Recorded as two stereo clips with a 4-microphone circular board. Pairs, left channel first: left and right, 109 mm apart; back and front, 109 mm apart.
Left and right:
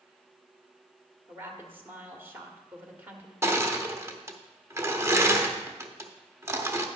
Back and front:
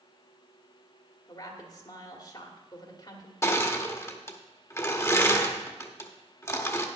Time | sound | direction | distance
1.3 | a woman speaking | 155° right | 1.5 m
3.4 | crushing | 135° right | 0.8 m